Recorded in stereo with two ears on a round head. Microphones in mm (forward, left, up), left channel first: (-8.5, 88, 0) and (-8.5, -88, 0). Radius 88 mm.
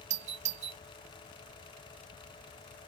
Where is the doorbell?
35° right (ahead or behind).